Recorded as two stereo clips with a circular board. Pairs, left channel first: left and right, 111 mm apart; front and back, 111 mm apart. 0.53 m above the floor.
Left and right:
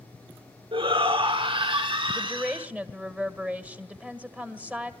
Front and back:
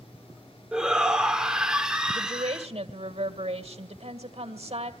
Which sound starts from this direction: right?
A shout, at 0.7 s.